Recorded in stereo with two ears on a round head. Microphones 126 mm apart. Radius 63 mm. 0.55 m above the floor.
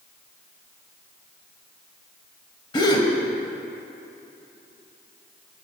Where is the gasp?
30° left (ahead or behind), 0.5 m.